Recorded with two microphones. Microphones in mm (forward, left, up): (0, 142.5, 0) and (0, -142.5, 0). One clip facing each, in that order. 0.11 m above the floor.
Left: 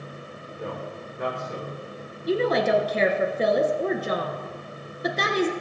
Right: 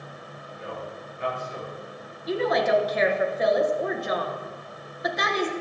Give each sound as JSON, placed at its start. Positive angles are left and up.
{"t": 0.6, "sound": "a man speaking", "side_deg": 75, "distance_m": 5.0}
{"t": 2.3, "sound": "a woman speaking", "side_deg": 35, "distance_m": 1.5}